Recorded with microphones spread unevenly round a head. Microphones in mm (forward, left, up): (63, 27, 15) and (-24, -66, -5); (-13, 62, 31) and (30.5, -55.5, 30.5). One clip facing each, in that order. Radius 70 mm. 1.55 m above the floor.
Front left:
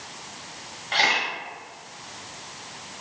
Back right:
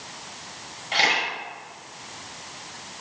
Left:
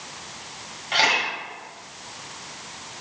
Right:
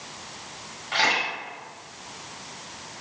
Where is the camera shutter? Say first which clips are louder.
Even, left 2 dB; 150° left, 1.6 m.